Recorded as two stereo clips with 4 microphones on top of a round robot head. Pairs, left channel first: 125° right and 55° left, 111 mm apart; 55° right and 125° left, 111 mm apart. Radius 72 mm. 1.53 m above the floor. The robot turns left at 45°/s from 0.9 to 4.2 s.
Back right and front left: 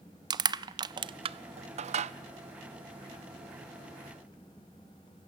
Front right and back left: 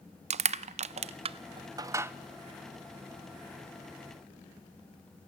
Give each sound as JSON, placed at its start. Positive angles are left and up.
{"t": 0.3, "sound": "crushing", "azimuth_deg": 105, "distance_m": 0.7}